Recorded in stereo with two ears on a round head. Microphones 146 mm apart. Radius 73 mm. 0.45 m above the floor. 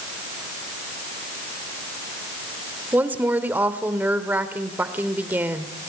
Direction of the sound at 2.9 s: 10° right (ahead or behind).